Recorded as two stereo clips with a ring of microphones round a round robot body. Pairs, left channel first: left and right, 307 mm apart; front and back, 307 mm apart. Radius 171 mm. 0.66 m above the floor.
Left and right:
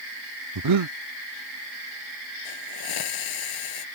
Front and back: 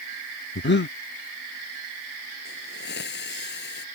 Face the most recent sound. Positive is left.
turn(degrees=60)